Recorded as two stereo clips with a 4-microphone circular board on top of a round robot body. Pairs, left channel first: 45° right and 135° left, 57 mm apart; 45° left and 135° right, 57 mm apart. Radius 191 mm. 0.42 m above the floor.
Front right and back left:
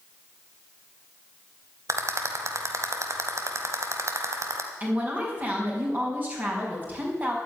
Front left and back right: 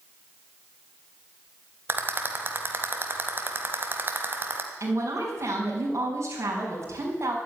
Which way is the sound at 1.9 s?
170° left.